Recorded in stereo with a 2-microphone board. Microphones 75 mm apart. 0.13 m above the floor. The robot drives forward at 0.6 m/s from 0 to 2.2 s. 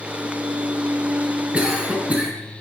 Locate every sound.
1.5 s a cough: 15° right (ahead or behind), 1.2 m; by 2.3 s 20° right (ahead or behind), 1.1 m